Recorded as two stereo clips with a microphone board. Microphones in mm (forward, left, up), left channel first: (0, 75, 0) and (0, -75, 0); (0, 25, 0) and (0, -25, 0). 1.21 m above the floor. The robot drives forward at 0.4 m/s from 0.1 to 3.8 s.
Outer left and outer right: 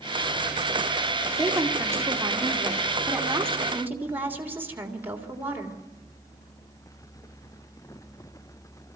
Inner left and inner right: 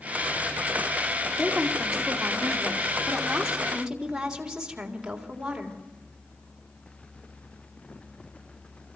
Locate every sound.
1.4 s a woman speaking: 20° right (ahead or behind), 2.5 m; by 5.8 s 10° right (ahead or behind), 3.5 m